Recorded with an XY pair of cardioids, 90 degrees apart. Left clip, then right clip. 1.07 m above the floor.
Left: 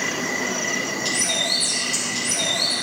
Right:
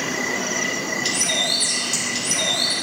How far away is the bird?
About 3.5 m.